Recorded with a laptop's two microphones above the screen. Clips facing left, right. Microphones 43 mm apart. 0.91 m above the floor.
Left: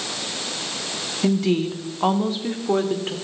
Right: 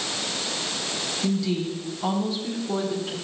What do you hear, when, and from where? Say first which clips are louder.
1.2 s a woman speaking: left 6 dB; 45° left (ahead or behind), 1.5 m; by 3.1 s 50° left (ahead or behind), 2.5 m